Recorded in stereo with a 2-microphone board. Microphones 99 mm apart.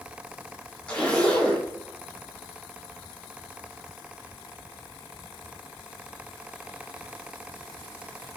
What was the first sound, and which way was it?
A zipper, 10° left (ahead or behind).